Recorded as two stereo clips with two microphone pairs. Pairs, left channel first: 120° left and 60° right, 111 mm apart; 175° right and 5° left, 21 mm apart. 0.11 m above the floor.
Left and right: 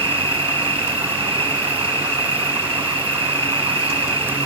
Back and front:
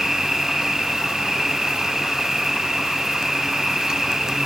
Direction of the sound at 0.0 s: 55° right.